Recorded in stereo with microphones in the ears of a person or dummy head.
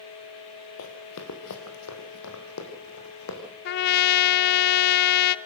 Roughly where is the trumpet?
Left.